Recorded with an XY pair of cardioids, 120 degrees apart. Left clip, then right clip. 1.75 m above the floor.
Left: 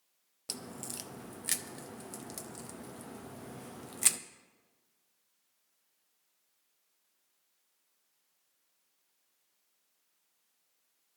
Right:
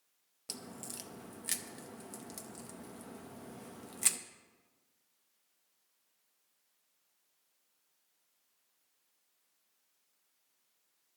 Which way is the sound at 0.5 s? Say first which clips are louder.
Left 3 dB; 20° left.